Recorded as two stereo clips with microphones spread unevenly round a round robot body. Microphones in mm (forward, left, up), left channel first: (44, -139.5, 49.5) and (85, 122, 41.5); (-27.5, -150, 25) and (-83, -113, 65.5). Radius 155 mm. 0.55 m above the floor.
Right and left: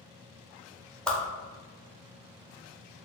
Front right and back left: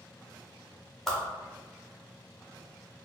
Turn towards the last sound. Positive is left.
turn(degrees=-10)